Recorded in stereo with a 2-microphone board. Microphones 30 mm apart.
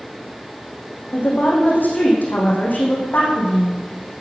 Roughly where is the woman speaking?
Left.